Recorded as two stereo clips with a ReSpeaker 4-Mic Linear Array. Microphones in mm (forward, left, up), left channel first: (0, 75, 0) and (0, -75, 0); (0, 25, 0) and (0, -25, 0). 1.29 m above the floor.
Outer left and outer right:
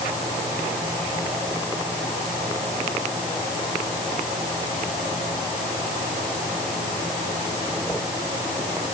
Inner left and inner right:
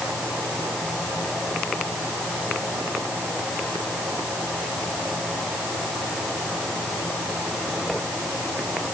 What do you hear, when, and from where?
Only background noise.